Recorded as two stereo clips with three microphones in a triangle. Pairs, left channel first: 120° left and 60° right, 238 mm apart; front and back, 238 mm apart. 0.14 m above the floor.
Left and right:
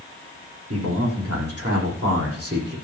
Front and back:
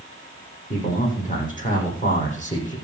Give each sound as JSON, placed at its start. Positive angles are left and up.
{"t": 0.7, "sound": "a man speaking", "azimuth_deg": -55, "distance_m": 9.0}